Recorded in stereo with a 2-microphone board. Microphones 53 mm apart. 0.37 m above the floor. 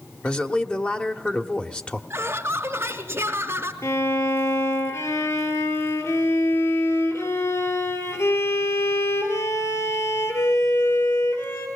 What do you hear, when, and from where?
0.2 s a man speaking: 20° left (ahead or behind), 1.2 m
2.1 s laughter: 50° right (ahead or behind), 1.9 m
3.8 s a violin: 65° left (ahead or behind), 3.5 m